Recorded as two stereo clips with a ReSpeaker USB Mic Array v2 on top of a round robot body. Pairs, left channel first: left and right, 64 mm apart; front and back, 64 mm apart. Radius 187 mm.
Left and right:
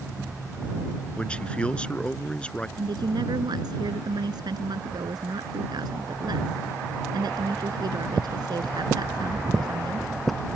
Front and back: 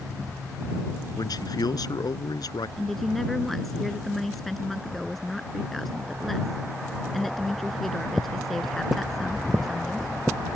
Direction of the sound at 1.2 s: 15° left.